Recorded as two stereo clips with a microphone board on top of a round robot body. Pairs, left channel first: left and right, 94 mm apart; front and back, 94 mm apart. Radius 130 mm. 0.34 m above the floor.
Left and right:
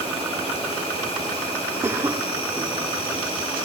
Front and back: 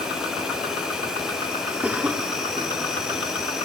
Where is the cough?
115° right, 0.9 m.